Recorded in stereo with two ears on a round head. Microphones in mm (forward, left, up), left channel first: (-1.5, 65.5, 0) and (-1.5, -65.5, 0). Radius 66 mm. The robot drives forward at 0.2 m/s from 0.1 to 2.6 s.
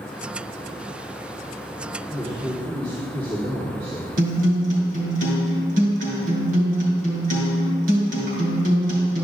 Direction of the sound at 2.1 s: 45° right (ahead or behind).